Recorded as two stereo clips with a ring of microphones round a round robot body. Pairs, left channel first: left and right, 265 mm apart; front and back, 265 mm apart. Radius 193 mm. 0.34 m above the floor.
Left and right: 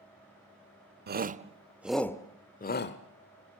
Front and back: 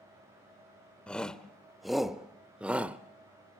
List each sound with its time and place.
1.1 s a shout: 85° right, 1.0 m; by 3.0 s 95° left, 1.0 m